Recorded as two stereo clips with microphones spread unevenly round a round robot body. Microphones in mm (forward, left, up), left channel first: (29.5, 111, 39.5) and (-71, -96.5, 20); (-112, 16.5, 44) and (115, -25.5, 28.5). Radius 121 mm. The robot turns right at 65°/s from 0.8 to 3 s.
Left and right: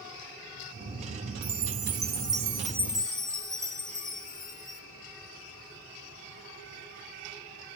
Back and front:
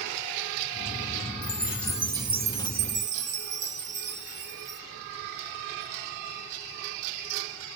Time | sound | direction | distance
1.4 | a chime | 130° right | 1.4 m